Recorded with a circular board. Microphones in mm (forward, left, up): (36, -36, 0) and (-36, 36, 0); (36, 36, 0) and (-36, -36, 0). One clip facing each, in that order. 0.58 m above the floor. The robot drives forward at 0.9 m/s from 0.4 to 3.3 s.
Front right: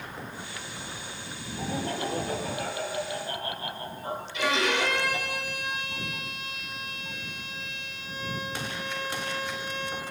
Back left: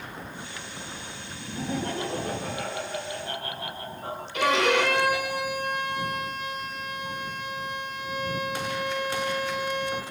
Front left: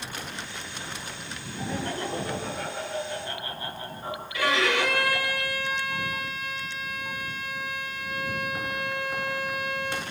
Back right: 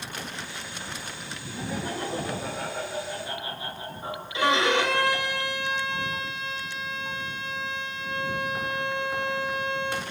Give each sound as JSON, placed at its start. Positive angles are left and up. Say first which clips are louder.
{"t": 1.6, "sound": "laughter", "louder": "back left 1 dB, even", "azimuth_deg": 145, "distance_m": 8.0}
{"t": 4.3, "sound": "a violin", "louder": "back left 5 dB, back right 2 dB", "azimuth_deg": 160, "distance_m": 3.0}